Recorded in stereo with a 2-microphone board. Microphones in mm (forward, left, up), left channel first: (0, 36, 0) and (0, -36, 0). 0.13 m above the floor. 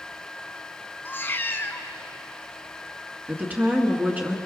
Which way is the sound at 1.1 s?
30° left (ahead or behind).